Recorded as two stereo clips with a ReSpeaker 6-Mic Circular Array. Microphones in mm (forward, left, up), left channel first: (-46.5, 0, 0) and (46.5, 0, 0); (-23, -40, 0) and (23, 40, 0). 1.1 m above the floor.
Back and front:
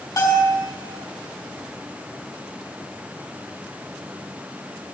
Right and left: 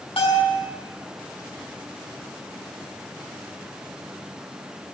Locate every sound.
0.2 s a bell: 130° right, 4.5 m